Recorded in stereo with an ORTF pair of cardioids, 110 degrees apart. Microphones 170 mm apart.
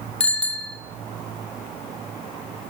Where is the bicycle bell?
5° left, 2.5 m.